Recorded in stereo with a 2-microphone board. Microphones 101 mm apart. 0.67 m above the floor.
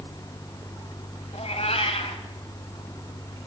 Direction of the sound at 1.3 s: 75° left (ahead or behind).